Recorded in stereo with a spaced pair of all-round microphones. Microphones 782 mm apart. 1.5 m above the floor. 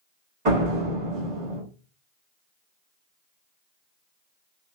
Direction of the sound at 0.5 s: 50° right (ahead or behind).